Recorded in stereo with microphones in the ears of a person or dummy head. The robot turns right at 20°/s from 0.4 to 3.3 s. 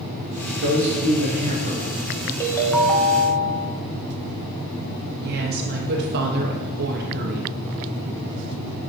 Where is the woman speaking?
55° right (ahead or behind), 0.9 m.